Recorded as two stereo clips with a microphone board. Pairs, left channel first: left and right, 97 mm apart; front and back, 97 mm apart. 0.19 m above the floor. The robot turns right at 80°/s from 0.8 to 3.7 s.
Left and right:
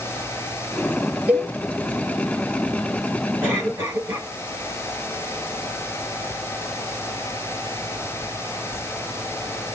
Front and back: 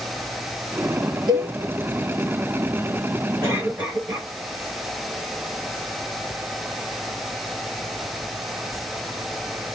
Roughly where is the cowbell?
Behind.